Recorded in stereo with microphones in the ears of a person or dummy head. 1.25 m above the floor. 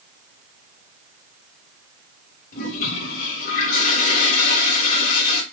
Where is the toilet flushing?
45° left (ahead or behind), 3 m.